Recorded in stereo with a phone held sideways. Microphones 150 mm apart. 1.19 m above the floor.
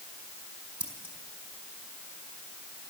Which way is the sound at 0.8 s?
30° right (ahead or behind).